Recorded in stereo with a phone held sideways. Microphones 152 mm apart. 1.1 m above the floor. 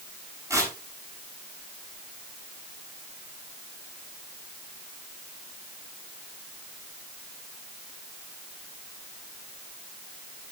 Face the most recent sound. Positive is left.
turn(degrees=-20)  # may be behind; listen again after turning